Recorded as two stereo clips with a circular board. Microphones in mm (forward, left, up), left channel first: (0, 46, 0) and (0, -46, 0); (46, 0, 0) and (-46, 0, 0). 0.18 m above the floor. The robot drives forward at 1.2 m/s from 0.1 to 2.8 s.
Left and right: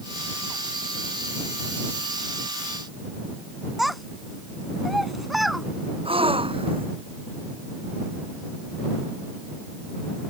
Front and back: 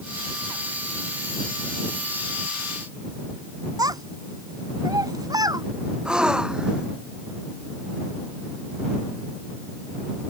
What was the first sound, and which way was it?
A child speaking, straight behind.